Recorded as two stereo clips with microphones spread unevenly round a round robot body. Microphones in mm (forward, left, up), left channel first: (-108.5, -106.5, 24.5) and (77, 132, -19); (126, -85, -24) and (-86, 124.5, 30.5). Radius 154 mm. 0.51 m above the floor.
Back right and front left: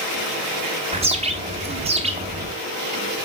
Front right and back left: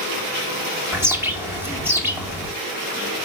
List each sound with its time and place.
0.9 s a bird: 40° left, 1.2 m